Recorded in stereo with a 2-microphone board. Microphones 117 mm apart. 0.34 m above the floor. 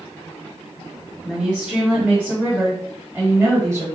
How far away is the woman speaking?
About 2.5 m.